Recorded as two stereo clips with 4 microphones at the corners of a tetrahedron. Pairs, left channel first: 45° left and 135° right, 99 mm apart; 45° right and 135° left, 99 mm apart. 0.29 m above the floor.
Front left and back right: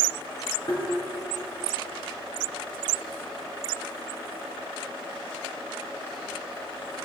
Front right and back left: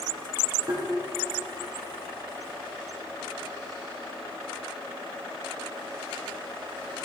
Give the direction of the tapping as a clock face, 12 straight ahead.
9 o'clock.